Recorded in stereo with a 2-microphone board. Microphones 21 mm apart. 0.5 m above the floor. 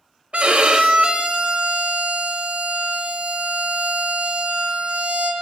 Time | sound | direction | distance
0.3 | a violin | 80° right | 0.5 m